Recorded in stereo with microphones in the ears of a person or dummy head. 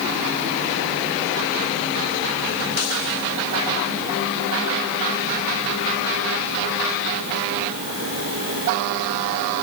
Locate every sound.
Only background noise.